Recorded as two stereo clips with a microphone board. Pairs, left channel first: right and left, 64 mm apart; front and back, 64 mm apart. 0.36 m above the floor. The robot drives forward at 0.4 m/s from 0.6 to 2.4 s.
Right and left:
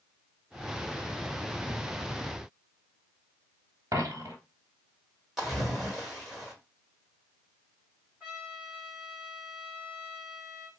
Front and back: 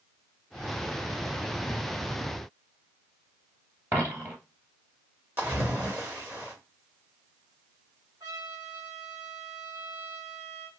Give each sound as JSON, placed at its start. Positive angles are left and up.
{"t": 3.9, "sound": "a dropped coin", "azimuth_deg": 125, "distance_m": 1.5}
{"t": 5.4, "sound": "a splash", "azimuth_deg": 175, "distance_m": 1.6}
{"t": 8.2, "sound": "a trumpet", "azimuth_deg": 165, "distance_m": 1.9}